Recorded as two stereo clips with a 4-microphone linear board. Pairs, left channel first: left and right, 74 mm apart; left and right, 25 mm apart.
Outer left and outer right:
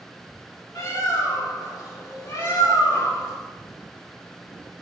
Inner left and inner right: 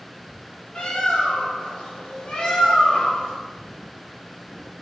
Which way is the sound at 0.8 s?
50° left (ahead or behind).